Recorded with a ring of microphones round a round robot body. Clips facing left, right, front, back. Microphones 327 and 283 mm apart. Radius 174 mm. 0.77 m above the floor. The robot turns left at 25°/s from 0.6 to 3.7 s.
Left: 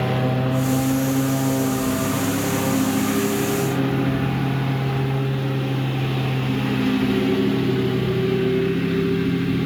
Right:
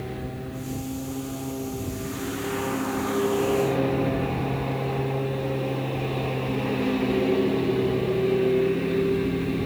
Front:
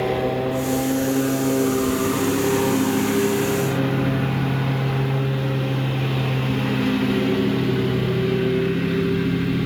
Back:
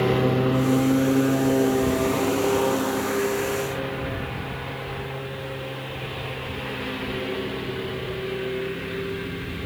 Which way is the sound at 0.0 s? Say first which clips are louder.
Left 11 dB, back 1 dB; 105° left.